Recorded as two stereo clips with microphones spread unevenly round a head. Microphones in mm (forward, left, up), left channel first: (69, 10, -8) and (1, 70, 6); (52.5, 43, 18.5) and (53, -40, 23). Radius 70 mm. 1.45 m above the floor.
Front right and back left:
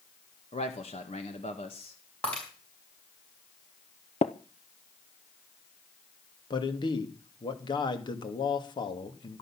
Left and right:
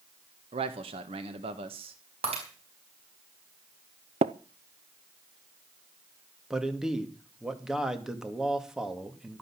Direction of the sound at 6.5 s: 5° right.